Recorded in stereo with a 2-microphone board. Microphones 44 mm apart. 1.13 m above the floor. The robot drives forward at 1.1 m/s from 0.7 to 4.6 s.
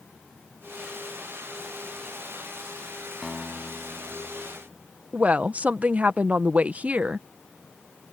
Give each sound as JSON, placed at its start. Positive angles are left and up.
{"t": 3.2, "sound": "a guitar", "side_deg": -10}
{"t": 5.1, "sound": "a woman speaking", "side_deg": -35}